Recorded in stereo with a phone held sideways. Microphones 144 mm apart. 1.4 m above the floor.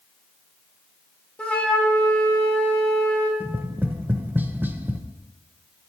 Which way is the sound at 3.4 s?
15° right (ahead or behind).